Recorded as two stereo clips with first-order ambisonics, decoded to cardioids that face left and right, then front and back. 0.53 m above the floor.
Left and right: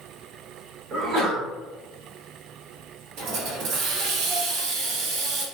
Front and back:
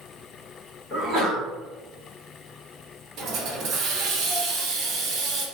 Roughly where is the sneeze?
Ahead right.